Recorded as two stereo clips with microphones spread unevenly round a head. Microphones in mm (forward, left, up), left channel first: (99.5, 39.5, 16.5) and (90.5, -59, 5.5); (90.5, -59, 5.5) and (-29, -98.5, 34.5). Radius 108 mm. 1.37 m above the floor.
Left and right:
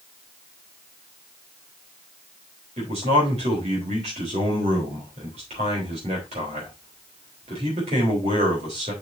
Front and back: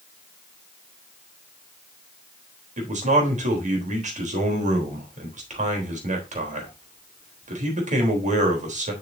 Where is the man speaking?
140° right, 3.5 m.